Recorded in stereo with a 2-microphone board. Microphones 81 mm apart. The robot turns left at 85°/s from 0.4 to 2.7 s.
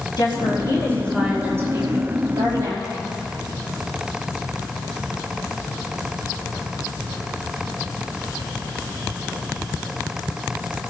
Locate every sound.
0.2 s a woman speaking: 70° left, 5 m; by 3.2 s 125° right, 5 m